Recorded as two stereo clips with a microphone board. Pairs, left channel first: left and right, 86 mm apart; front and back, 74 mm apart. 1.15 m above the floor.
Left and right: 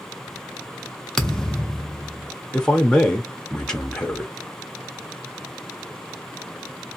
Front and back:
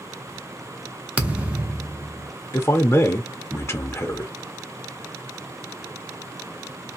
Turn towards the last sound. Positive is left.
turn(degrees=15)